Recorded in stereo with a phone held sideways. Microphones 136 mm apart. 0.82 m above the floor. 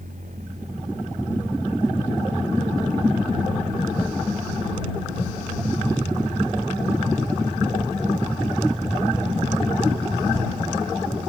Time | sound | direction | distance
0.0 | a machine running | 75° right (ahead or behind) | ?